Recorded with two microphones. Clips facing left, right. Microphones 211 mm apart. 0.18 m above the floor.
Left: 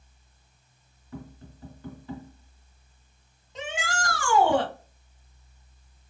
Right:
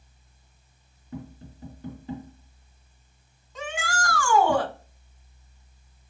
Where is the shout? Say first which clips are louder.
Right 1 dB; 20° left (ahead or behind), 1.3 m.